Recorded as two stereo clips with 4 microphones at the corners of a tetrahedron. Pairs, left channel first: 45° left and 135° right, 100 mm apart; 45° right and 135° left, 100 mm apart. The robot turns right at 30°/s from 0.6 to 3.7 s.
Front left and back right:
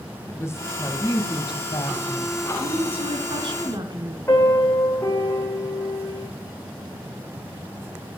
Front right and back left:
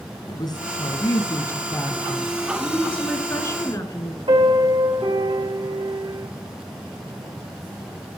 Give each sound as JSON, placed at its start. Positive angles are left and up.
{"t": 0.3, "sound": "a woman speaking", "azimuth_deg": -10, "distance_m": 1.5}
{"t": 2.6, "sound": "a woman speaking", "azimuth_deg": -130, "distance_m": 2.5}
{"t": 4.3, "sound": "a piano", "azimuth_deg": 110, "distance_m": 3.5}